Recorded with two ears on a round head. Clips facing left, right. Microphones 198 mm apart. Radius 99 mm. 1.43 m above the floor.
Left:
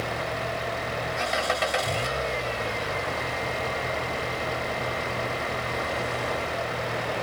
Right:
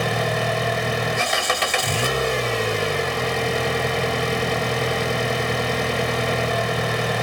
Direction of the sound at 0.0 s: 85° right.